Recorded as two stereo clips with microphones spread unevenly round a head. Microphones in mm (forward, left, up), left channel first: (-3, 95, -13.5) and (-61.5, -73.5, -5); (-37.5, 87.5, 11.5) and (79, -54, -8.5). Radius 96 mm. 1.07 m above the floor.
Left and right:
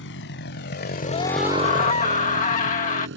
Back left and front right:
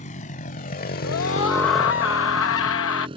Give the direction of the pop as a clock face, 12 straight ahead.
No pop in this recording.